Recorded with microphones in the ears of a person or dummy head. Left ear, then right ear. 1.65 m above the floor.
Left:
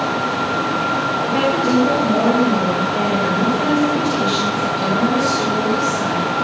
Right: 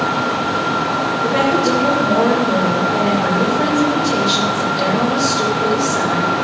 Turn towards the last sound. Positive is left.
turn(degrees=-75)  # may be behind; listen again after turning